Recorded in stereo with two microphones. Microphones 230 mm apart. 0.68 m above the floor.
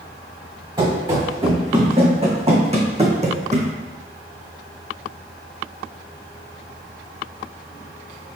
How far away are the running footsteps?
About 3 m.